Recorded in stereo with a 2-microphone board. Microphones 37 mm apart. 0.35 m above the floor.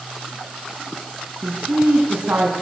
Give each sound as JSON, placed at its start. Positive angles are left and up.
{"t": 1.4, "sound": "a woman speaking", "side_deg": -70, "distance_m": 3.5}